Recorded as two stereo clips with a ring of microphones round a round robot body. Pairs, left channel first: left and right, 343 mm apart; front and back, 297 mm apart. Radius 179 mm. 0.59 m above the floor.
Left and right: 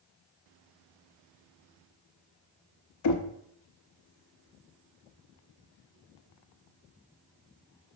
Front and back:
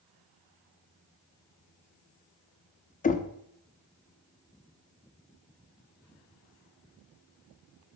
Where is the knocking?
65° left, 0.8 m.